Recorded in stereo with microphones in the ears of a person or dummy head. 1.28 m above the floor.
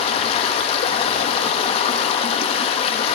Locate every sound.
0.0 s running water: 30° left (ahead or behind), 0.8 m